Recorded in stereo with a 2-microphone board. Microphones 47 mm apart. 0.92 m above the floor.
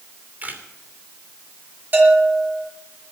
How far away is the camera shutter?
About 3 m.